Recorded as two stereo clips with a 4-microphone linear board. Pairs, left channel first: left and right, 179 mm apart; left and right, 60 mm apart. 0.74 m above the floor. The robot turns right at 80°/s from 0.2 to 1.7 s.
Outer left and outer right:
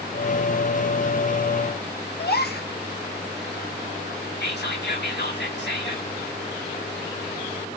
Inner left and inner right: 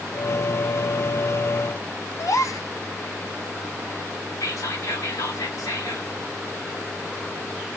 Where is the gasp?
65° left (ahead or behind), 1.6 m.